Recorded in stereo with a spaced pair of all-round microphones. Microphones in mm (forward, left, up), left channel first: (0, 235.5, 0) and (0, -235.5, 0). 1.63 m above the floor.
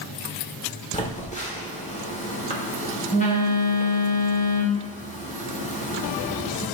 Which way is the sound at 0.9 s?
15° left (ahead or behind).